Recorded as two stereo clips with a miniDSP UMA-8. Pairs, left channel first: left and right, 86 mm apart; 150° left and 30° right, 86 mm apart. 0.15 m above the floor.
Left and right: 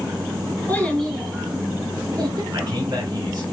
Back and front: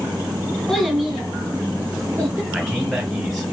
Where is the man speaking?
115° right, 1.8 m.